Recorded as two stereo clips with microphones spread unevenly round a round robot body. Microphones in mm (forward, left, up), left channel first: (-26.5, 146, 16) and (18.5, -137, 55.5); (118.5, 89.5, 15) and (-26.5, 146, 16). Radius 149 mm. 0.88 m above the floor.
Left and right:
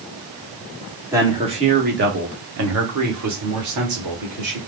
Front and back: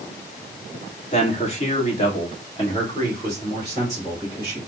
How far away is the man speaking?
About 1.2 m.